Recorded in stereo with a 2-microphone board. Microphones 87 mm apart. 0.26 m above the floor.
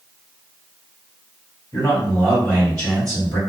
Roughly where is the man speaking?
Left.